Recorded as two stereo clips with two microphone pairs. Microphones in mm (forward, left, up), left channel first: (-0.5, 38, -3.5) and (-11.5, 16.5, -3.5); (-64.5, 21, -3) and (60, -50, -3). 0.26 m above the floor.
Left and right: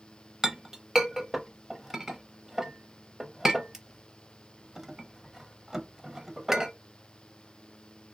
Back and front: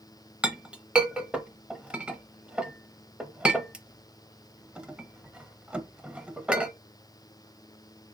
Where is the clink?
95° right, 0.5 m.